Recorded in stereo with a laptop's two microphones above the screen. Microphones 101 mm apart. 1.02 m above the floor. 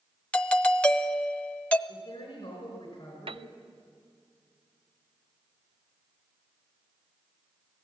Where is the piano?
60° right (ahead or behind), 0.5 m.